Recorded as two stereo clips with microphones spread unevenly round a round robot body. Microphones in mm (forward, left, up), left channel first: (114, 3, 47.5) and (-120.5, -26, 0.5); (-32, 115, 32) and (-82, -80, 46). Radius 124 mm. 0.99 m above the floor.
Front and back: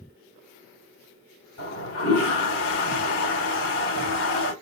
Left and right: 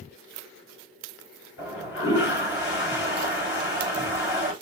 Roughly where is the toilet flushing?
Ahead left.